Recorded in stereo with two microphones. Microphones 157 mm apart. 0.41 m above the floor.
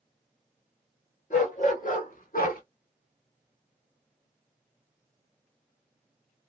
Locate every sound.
1.3 s a dog barking: 55° left (ahead or behind), 2 m; by 2.6 s 75° left (ahead or behind), 0.8 m